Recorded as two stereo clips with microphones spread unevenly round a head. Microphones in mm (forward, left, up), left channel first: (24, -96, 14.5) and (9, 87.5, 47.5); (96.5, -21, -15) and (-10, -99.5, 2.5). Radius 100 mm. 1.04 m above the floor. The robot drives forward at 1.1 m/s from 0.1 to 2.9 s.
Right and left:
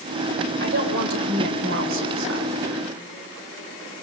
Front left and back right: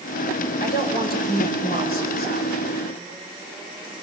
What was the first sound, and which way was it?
A woman speaking, 60° left.